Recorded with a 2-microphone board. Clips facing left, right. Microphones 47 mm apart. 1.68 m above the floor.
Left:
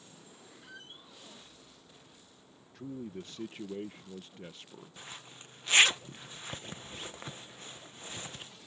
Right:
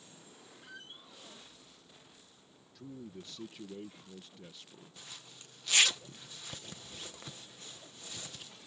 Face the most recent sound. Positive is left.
turn(degrees=30)  # may be behind; listen again after turning